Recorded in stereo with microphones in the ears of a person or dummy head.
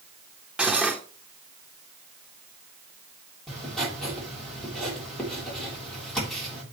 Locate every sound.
0.6 s cutlery clinking: 10° right (ahead or behind), 1.2 m
3.5 s writing: 5° left (ahead or behind), 3.5 m